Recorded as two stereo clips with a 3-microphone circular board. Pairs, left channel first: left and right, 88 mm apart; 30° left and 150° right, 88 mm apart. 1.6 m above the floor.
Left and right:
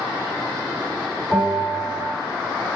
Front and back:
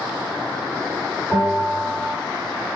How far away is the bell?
About 1.6 m.